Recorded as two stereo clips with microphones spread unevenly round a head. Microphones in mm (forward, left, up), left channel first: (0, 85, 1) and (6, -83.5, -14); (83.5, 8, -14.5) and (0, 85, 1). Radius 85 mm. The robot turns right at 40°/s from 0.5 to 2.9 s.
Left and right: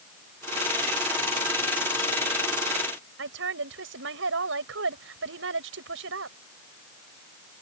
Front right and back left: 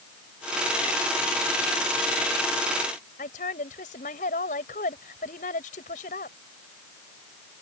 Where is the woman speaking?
75° right.